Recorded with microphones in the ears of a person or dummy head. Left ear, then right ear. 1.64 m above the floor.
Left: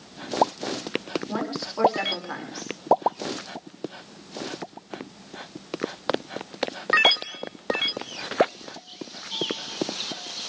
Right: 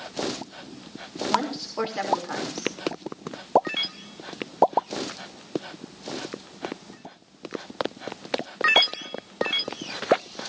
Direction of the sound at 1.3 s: 10° right (ahead or behind).